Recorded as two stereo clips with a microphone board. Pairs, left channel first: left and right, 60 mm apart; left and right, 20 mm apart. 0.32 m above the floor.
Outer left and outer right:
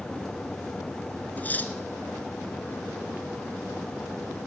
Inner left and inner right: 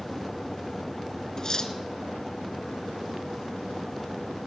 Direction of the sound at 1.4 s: 30° left (ahead or behind).